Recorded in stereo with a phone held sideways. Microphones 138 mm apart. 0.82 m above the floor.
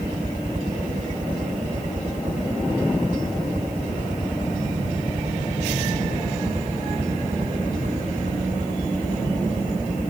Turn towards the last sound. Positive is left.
turn(degrees=-70)  # may be behind; listen again after turning